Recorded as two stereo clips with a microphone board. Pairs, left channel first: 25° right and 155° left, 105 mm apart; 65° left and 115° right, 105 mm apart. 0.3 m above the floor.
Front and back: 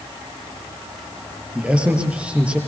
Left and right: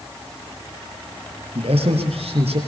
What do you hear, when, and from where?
1.6 s a man speaking: 125° right, 6 m